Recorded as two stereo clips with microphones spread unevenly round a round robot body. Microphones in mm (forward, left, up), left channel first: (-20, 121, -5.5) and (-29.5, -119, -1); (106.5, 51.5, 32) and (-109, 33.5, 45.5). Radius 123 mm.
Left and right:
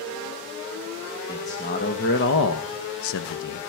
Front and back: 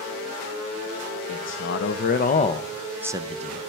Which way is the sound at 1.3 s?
25° left.